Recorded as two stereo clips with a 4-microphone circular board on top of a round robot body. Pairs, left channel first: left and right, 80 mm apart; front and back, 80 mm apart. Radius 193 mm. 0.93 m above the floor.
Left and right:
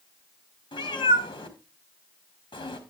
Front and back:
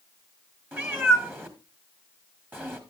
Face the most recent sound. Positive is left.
turn(degrees=115)